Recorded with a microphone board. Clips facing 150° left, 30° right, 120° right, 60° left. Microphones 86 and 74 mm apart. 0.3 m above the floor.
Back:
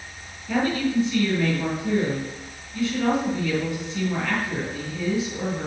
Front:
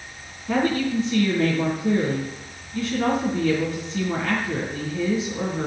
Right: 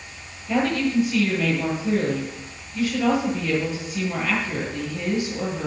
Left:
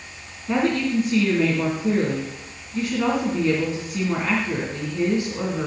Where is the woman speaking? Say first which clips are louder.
Front 1 dB, left 1 dB; 20° left, 3.5 m.